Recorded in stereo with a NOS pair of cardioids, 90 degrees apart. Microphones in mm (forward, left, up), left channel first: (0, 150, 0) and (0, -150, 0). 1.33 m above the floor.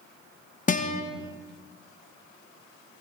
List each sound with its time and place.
0.7 s a guitar: 25° left, 1.1 m